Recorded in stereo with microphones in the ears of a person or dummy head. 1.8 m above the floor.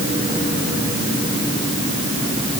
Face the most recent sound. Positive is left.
No sound to turn to.